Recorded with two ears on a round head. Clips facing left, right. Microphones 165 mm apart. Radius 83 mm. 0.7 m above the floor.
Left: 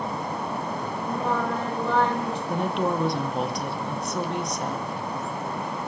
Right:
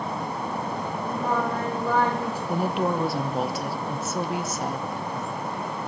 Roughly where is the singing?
Centre.